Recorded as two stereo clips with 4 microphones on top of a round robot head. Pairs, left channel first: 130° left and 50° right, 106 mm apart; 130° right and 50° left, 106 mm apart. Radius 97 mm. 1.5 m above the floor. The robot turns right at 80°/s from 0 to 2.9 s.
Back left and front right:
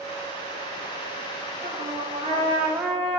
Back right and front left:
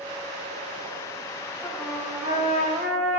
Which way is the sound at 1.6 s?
55° right.